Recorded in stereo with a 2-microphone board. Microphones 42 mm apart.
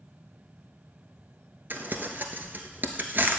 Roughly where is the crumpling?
Right.